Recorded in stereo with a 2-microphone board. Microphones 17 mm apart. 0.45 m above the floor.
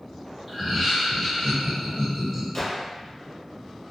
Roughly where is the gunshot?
Left.